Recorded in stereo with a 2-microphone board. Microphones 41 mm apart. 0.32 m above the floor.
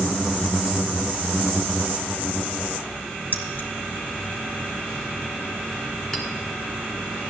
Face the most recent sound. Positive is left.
turn(degrees=15)  # may be behind; listen again after turning